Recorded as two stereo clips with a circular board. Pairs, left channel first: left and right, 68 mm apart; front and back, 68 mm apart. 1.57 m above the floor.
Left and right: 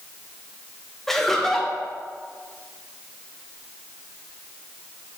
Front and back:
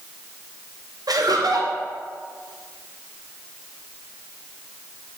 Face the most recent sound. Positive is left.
turn(degrees=175)